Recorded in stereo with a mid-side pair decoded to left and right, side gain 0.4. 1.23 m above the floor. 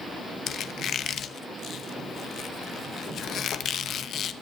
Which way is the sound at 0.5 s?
65° left.